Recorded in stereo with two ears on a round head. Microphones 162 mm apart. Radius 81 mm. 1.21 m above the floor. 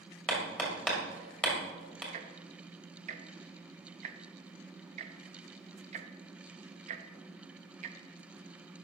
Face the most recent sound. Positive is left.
turn(degrees=-40)  # may be behind; listen again after turning